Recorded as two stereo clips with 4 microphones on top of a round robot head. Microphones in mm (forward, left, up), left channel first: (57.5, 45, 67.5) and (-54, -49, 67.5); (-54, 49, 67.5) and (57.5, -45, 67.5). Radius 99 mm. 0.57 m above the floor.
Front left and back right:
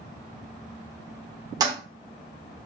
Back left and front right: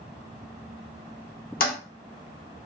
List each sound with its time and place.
1.6 s a toilet flushing: 155° left, 0.8 m